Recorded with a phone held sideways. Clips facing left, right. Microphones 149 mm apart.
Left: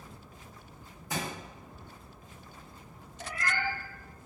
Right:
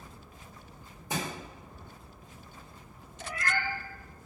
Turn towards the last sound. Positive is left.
turn(degrees=35)  # may be behind; listen again after turning